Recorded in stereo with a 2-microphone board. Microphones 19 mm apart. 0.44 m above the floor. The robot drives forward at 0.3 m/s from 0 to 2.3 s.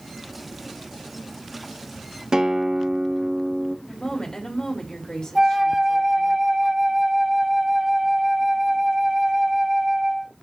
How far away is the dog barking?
No dog barking in this recording.